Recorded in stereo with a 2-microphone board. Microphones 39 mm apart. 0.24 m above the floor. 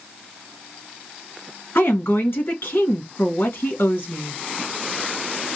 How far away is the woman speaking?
About 3 m.